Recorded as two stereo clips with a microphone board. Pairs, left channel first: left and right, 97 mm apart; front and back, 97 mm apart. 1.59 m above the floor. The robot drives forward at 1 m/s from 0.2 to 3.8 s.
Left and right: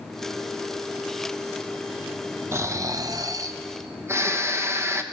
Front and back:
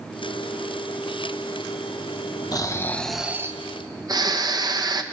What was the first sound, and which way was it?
Snoring, 35° right.